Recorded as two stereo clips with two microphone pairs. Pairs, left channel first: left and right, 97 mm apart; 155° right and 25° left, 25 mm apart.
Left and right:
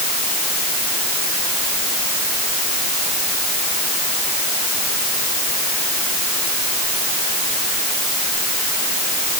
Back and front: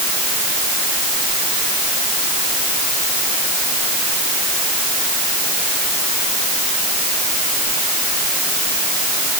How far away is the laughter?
I don't hear laughter.